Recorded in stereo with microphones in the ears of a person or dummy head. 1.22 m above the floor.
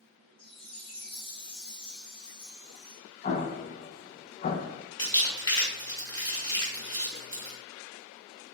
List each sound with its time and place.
0.4 s a chime: 25° left (ahead or behind), 1.0 m
3.2 s an explosion: 35° left (ahead or behind), 0.6 m
5.0 s crumpling: 25° left (ahead or behind), 1.6 m